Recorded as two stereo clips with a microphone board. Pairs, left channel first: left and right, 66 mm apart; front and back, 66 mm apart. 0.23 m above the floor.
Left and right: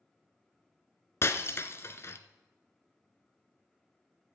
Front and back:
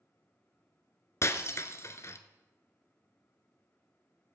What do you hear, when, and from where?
1.2 s breaking glass: 40° left, 0.7 m